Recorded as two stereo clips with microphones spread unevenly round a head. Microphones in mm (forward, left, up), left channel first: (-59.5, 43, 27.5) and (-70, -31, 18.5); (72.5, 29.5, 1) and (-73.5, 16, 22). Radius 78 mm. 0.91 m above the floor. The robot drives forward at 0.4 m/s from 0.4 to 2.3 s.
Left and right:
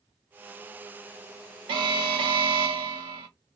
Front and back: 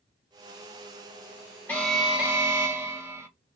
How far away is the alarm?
About 0.6 m.